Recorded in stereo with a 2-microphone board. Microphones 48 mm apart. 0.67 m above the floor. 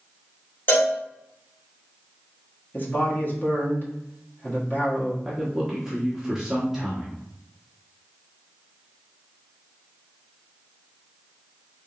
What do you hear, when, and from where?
0.7 s a cowbell: 45° left (ahead or behind), 1.4 m
2.7 s a man speaking: 40° left (ahead or behind), 1.2 m
5.2 s a man speaking: 5° right (ahead or behind), 1.0 m